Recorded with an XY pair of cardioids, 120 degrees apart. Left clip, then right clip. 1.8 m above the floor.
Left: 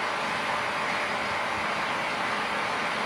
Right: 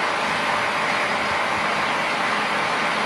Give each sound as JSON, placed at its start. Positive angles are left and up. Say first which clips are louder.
{"t": 0.0, "sound": "a fan", "louder": "right 6 dB", "azimuth_deg": -35, "distance_m": 0.7}